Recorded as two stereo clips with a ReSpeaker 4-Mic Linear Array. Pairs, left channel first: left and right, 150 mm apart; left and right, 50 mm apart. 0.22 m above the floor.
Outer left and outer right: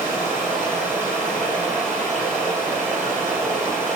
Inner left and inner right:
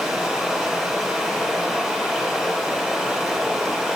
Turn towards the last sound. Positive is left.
turn(degrees=5)  # may be behind; listen again after turning